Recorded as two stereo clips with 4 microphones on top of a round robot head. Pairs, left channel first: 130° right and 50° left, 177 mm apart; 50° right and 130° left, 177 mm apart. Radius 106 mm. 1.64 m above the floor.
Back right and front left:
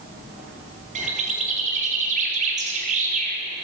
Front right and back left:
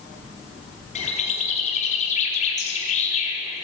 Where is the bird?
Straight ahead, 4 m.